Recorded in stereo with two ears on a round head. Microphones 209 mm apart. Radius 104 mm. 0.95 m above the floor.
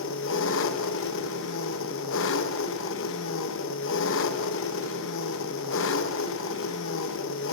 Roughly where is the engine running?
Left.